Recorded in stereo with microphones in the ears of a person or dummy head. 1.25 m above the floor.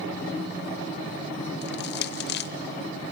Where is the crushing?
50° left (ahead or behind), 0.6 m.